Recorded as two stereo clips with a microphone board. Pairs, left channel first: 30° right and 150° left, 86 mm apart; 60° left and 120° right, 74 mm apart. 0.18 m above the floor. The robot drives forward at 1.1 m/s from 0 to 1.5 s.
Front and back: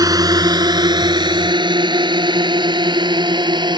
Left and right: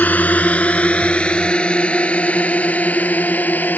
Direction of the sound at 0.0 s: 120° left.